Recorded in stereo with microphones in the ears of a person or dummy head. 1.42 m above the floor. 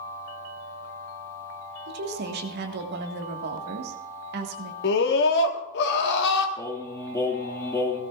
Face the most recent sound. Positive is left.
turn(degrees=15)  # may be behind; listen again after turning